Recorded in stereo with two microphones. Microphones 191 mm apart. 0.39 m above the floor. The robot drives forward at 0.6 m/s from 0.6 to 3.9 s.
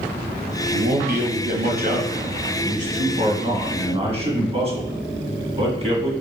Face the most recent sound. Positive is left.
turn(degrees=-35)  # may be behind; listen again after turning